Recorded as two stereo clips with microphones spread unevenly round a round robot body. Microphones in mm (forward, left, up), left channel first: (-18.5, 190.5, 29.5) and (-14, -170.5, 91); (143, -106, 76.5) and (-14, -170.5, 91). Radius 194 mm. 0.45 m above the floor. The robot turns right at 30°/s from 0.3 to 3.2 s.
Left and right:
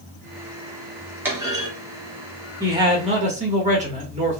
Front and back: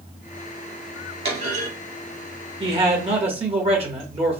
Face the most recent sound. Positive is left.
turn(degrees=-160)